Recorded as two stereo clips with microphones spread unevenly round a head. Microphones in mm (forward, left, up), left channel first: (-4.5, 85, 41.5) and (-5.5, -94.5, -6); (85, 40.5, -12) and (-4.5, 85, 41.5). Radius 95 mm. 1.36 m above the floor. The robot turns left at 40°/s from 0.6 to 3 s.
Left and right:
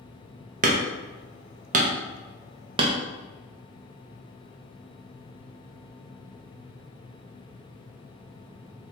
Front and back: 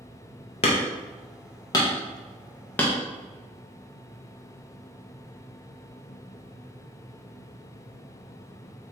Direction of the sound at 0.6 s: 70° right.